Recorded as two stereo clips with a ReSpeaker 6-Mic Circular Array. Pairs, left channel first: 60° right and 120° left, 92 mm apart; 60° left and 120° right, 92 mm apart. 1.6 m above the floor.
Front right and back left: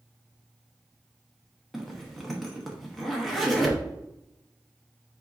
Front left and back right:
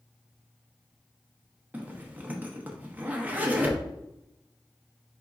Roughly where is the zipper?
Behind right.